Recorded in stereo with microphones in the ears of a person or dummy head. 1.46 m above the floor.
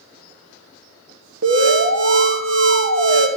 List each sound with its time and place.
1.4 s an alarm: 70° right (ahead or behind), 1.4 m